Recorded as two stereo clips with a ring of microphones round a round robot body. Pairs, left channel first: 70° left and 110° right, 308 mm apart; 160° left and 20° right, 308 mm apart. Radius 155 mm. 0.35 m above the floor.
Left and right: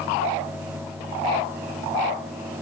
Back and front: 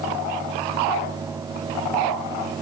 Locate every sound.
Only background noise.